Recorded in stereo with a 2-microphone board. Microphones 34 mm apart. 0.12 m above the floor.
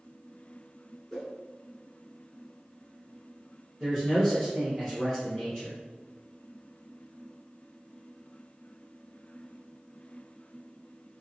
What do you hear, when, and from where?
1.1 s a whoosh: 15° left (ahead or behind), 1.3 m
3.8 s a man speaking: 5° left (ahead or behind), 1.9 m